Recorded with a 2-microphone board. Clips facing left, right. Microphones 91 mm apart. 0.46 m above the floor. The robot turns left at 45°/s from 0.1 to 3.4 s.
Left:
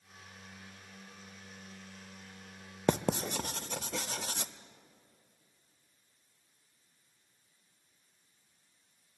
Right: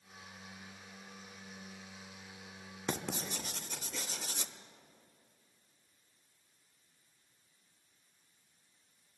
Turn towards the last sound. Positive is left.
turn(degrees=60)  # may be behind; listen again after turning